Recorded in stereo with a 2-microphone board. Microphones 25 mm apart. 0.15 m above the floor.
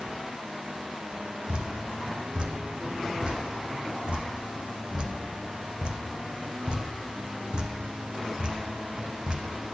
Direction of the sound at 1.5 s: 45° right (ahead or behind).